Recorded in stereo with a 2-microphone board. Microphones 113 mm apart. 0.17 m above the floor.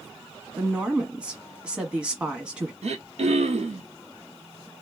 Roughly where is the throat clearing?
Right.